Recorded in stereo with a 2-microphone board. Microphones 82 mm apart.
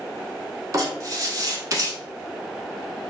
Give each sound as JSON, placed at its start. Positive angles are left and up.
{"t": 0.7, "sound": "writing", "side_deg": -45, "distance_m": 0.8}